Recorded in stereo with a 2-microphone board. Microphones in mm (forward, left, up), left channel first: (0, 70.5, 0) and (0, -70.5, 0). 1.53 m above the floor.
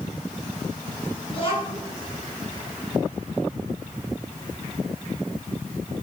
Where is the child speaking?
40° left (ahead or behind), 9.5 m.